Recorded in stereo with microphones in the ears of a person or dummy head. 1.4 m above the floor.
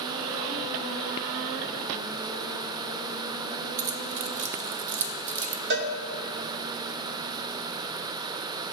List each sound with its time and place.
3.8 s keys jangling: 35° right (ahead or behind), 0.7 m
5.7 s a cowbell: 45° right (ahead or behind), 0.5 m